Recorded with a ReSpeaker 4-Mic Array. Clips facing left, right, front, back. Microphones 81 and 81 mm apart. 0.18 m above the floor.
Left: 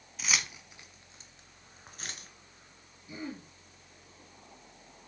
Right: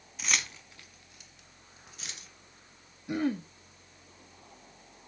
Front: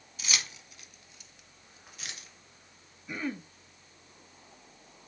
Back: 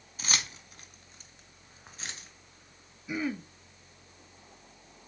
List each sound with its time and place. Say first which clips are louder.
0.2 s keys jangling: even, back 2 dB; straight behind, 0.9 m; by 2.3 s 125° left, 1.6 m
3.1 s throat clearing: right 11 dB, back 3 dB; 95° right, 0.6 m